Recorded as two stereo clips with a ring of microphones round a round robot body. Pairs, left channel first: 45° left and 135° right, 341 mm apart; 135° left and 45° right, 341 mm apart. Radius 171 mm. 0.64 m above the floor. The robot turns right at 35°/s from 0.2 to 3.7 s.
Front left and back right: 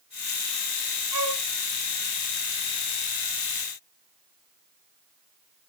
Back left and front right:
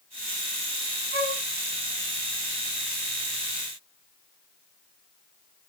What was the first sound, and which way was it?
A flute, 110° right.